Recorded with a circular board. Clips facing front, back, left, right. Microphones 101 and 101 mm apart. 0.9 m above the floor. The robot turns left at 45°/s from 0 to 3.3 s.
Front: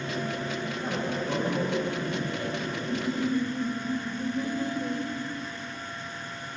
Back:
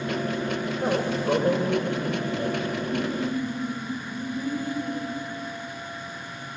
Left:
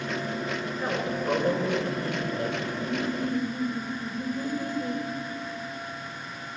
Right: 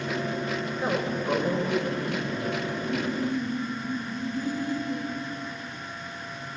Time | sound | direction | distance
0.8 | a man speaking | 165° right | 4.5 m
2.8 | laughter | 85° left | 3.5 m